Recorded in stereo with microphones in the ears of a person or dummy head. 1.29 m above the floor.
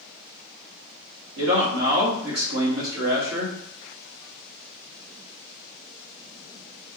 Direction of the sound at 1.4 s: 70° right (ahead or behind).